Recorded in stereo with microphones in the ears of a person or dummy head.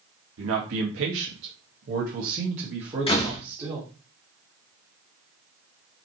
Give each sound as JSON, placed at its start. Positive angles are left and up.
{"t": 0.4, "sound": "a man speaking", "side_deg": -85, "distance_m": 1.3}
{"t": 3.1, "sound": "a door slam", "side_deg": 30, "distance_m": 0.8}